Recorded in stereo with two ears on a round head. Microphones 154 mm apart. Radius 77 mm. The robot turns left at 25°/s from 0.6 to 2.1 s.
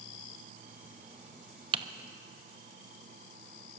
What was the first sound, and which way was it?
Typing on a keyboard, 25° right (ahead or behind).